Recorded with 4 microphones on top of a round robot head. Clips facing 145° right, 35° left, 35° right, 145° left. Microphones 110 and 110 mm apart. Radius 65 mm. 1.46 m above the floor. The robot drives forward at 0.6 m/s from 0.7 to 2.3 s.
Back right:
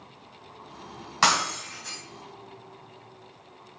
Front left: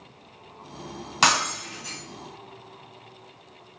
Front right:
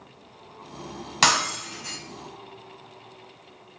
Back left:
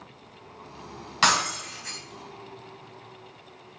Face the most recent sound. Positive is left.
turn(degrees=-75)